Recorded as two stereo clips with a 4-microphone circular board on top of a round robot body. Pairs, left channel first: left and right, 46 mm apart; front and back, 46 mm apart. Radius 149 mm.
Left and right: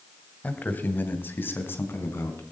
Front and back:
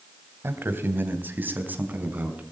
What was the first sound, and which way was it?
A man speaking, 145° left.